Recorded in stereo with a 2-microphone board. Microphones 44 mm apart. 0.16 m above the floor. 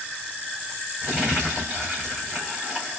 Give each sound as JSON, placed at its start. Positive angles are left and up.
{"t": 1.0, "sound": "crumpling", "side_deg": -15, "distance_m": 4.0}